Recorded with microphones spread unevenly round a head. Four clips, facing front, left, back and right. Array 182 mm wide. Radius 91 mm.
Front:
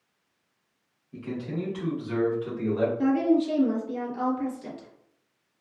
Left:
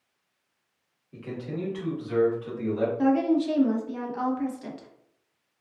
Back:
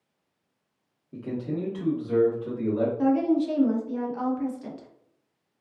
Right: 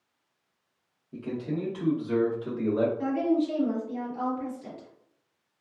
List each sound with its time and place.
1.1 s a man speaking: 150° right, 1.3 m; by 2.9 s 110° right, 1.6 m
3.0 s a woman speaking: 95° left, 1.0 m